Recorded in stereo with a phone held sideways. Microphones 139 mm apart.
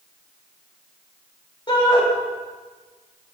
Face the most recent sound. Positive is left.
turn(degrees=35)  # may be behind; listen again after turning